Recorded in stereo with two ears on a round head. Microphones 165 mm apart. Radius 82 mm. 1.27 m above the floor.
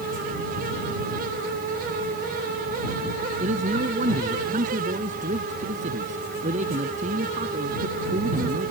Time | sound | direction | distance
3.4 | a man speaking | 40° right (ahead or behind) | ?